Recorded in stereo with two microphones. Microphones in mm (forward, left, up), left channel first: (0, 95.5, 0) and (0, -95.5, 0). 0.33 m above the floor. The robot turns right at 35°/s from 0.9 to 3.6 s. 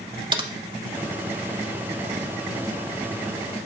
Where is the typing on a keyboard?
25° right (ahead or behind), 0.5 m.